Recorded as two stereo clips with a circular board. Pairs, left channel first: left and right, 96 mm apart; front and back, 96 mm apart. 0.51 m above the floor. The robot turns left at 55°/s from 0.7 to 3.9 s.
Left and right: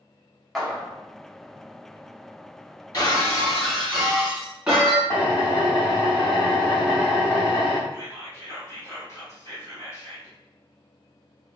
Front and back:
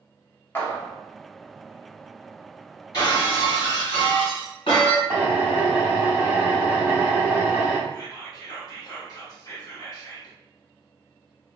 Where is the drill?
140° left, 1.2 m.